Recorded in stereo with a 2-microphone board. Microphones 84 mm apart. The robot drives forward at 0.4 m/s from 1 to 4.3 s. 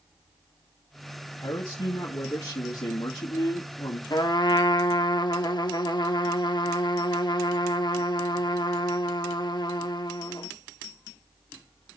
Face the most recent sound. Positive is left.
turn(degrees=60)  # may be behind; listen again after turning